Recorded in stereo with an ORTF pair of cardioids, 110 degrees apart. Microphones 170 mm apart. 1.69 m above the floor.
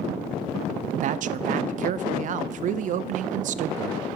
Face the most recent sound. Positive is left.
turn(degrees=-50)